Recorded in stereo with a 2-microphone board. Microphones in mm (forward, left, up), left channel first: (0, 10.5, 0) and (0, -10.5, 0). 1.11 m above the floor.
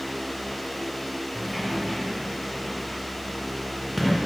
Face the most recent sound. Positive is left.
turn(degrees=0)  # may be behind; listen again after turning